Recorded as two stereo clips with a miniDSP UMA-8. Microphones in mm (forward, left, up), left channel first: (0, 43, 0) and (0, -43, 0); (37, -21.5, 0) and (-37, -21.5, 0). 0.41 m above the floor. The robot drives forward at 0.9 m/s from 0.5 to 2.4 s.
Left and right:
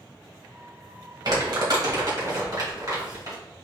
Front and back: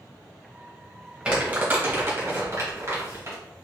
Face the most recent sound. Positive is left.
turn(degrees=-130)